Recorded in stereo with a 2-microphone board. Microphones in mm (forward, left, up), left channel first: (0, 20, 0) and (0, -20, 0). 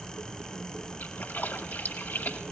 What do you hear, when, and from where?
1.0 s a splash: 60° left (ahead or behind), 1.7 m